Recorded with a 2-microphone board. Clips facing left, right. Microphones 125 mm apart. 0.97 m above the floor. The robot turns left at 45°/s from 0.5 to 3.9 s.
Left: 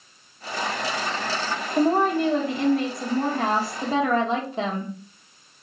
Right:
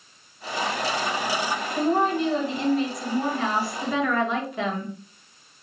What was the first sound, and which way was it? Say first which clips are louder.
A woman speaking: left 3 dB; 130° left.